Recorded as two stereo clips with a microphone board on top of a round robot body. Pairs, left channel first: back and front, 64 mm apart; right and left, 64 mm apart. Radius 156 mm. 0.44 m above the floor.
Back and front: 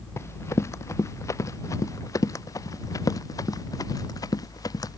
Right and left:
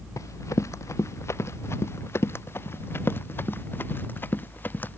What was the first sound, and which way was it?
Running footsteps, 130° right.